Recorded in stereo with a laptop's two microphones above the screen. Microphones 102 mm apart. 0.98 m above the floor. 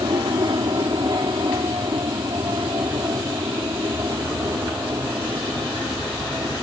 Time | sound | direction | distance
0.0 | an aircraft | 50° right (ahead or behind) | ?